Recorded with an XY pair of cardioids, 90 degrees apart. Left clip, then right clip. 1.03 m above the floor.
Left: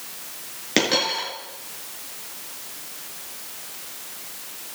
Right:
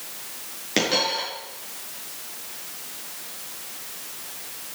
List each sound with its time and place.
0.8 s a dropped coin: 30° left, 6.5 m